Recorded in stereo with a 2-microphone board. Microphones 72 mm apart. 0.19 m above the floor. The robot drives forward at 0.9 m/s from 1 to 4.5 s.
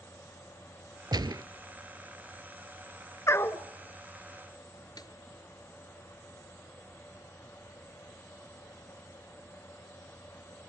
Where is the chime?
No chime in this recording.